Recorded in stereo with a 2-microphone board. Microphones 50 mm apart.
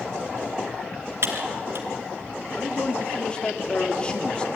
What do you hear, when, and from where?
1.2 s typing on a keyboard: 60° right (ahead or behind), 2.5 m
2.5 s a man speaking: 20° left (ahead or behind), 1.6 m